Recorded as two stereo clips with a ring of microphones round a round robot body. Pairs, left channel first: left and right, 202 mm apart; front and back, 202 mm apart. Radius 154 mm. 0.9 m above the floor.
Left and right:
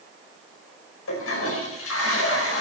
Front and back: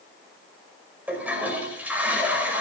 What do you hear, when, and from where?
1.1 s a toilet flushing: 100° left, 5 m